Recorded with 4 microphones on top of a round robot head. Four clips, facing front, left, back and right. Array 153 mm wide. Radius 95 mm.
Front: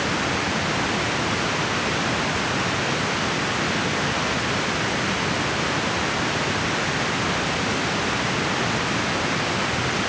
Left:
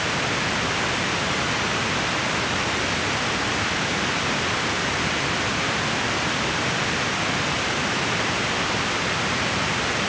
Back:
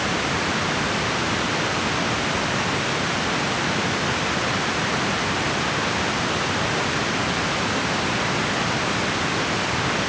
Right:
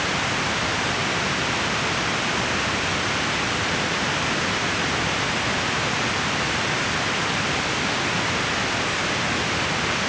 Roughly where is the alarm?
I don't hear an alarm.